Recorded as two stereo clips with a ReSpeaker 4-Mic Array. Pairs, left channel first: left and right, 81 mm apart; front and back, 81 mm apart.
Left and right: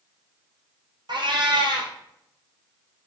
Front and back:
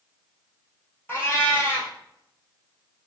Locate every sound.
1.1 s a cat meowing: 65° right, 1.6 m